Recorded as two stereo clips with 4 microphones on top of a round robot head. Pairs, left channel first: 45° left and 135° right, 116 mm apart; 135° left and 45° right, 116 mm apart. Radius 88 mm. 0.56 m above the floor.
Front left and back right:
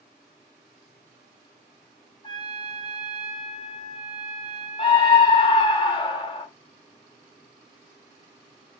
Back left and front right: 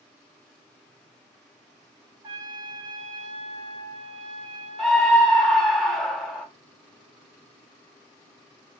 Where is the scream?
50° left, 1.3 m.